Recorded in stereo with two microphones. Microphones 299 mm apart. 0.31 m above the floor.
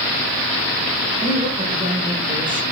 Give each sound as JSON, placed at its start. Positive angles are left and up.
{"t": 1.2, "sound": "a woman speaking", "side_deg": -25, "distance_m": 0.9}